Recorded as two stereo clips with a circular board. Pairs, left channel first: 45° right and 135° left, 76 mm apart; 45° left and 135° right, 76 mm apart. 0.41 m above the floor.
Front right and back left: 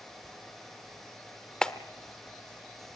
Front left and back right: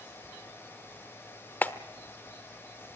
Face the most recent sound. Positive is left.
turn(degrees=25)